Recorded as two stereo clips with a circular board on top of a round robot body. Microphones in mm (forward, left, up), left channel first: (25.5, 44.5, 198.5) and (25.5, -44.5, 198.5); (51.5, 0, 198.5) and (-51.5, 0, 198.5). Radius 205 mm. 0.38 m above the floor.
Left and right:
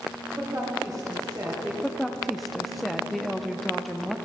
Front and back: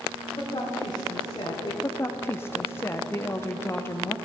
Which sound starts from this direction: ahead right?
A woman speaking, at 0.3 s.